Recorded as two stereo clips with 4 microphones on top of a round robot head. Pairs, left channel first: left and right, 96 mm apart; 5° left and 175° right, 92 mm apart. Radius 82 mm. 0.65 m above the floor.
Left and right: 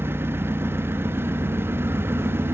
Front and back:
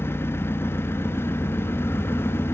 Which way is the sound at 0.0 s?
40° right.